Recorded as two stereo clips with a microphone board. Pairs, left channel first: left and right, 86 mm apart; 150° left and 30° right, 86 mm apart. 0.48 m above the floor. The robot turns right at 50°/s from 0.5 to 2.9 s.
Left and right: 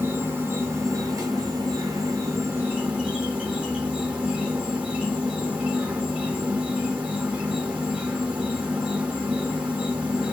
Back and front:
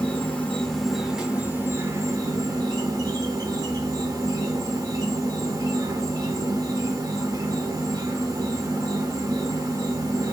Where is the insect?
145° right, 0.8 m; by 10.3 s 25° right, 0.8 m.